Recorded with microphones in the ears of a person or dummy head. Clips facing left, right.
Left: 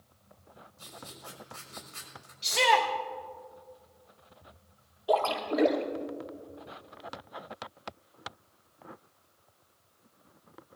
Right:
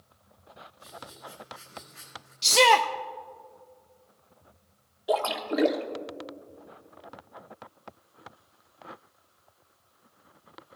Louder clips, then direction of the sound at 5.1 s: Even; 20° right (ahead or behind).